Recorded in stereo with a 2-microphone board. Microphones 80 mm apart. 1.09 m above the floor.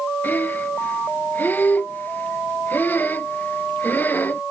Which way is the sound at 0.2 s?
25° left (ahead or behind).